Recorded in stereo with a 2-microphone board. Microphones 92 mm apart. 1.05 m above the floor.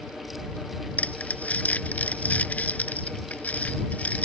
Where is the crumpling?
15° left (ahead or behind).